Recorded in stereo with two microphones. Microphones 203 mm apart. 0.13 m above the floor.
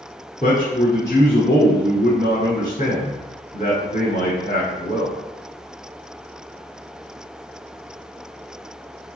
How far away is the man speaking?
About 1.4 m.